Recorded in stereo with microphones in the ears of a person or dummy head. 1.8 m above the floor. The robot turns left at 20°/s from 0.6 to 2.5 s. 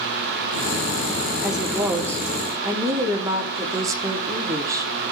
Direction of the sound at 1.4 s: Centre (ahead or behind).